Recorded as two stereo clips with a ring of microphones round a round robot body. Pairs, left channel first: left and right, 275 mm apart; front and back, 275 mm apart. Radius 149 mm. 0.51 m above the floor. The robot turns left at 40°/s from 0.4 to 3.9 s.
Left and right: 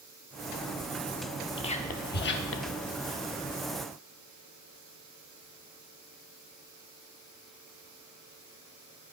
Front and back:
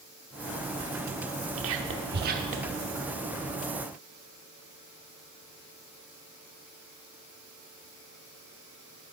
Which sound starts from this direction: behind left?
Whispering, at 1.6 s.